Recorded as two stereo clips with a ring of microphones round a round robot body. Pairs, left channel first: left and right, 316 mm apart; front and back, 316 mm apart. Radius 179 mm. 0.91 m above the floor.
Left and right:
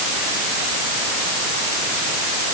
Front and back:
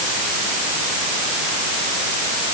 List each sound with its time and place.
Only background noise.